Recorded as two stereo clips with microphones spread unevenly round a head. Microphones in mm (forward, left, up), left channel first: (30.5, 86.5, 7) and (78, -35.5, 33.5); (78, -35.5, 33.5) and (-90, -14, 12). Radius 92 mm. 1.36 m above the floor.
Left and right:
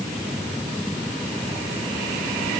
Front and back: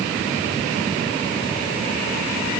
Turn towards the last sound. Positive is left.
No sound to turn to.